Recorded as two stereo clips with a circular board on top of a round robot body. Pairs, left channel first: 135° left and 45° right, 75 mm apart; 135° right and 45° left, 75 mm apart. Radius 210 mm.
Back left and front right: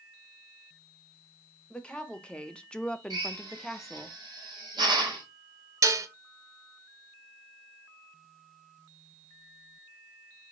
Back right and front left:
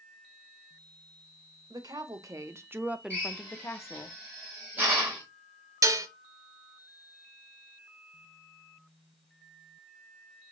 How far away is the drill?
About 2 m.